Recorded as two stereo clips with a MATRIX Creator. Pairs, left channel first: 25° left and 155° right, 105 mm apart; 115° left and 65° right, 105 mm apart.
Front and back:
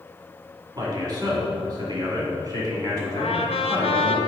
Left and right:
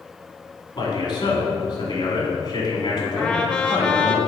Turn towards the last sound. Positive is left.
turn(degrees=30)